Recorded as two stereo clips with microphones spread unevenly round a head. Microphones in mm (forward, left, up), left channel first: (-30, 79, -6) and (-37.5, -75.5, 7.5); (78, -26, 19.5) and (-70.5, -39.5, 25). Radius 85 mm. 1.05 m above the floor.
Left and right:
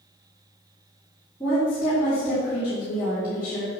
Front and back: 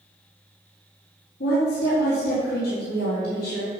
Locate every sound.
1.4 s a woman speaking: 5° left, 3.5 m